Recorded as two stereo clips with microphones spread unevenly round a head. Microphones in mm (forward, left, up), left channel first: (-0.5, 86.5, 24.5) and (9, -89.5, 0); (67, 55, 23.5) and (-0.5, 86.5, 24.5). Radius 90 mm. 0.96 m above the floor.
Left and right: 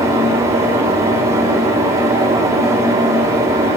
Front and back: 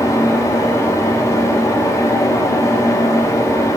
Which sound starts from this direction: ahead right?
A fan, at 0.0 s.